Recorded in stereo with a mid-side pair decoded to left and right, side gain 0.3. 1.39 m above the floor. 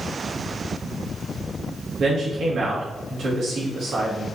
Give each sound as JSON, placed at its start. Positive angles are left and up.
{"t": 2.0, "sound": "a man speaking", "azimuth_deg": -70, "distance_m": 2.5}